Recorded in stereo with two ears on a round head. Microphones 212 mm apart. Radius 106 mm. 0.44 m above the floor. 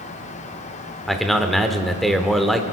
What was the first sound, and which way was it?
A man speaking, centre (ahead or behind).